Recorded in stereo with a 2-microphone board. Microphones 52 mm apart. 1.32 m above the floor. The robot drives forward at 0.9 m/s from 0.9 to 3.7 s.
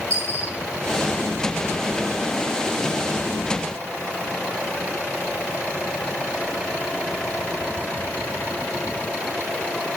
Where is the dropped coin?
80° right, 10 m.